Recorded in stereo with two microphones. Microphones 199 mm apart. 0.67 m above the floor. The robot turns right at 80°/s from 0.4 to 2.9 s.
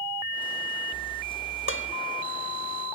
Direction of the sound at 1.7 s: 80° left.